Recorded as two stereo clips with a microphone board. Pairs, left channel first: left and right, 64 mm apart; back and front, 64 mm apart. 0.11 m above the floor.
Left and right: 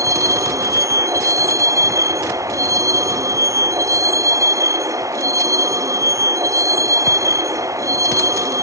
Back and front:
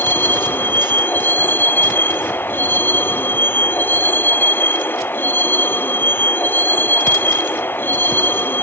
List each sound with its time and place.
0.0 s a vehicle: 120° right